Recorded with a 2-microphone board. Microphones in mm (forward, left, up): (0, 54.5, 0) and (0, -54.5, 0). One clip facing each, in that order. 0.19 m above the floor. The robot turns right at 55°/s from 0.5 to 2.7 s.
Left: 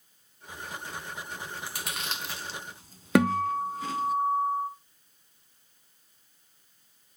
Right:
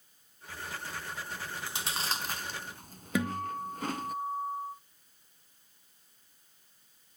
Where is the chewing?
5° right (ahead or behind), 0.9 m; by 4.2 s 50° right (ahead or behind), 0.9 m.